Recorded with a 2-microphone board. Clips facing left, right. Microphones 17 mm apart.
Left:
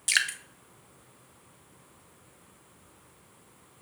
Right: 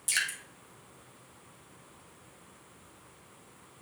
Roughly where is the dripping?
Left.